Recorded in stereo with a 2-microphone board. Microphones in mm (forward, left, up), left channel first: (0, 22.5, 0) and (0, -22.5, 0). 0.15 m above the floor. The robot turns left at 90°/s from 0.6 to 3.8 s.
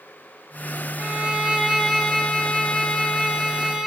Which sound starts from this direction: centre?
A violin, at 1.0 s.